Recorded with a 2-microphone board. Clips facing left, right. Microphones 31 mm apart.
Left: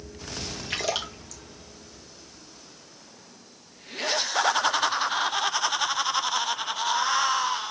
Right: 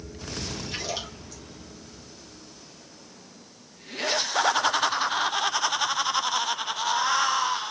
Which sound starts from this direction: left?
A splash, at 0.7 s.